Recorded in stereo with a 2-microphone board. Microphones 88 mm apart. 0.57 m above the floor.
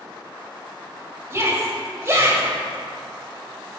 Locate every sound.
1.3 s a shout: 25° right (ahead or behind), 2 m